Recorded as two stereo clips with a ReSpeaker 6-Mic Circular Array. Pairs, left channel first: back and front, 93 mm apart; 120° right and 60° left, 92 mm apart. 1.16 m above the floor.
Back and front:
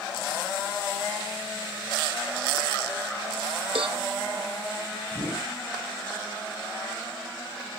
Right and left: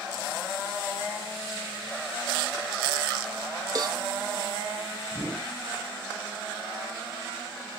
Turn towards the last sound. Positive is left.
turn(degrees=125)